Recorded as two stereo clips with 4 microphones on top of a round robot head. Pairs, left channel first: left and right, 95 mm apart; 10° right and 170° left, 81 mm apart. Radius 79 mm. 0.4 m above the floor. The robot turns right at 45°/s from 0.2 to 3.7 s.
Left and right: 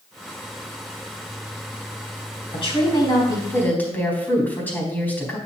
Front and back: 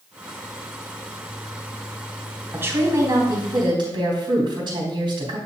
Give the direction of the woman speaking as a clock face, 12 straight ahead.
8 o'clock.